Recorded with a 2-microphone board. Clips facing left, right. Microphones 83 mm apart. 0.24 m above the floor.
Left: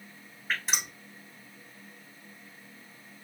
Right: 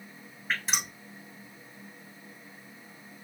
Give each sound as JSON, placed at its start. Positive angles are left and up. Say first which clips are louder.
{"t": 0.5, "sound": "dripping", "louder": "right 1 dB", "side_deg": 5, "distance_m": 3.5}